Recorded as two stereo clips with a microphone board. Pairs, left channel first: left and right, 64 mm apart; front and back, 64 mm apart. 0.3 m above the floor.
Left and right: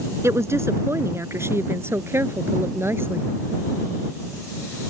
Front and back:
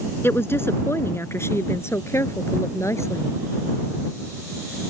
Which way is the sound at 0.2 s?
50° right.